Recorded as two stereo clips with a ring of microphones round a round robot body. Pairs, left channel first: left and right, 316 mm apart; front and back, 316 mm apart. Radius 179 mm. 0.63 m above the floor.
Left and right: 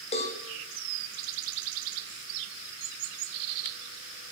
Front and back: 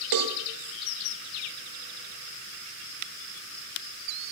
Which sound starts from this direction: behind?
A cowbell, at 0.1 s.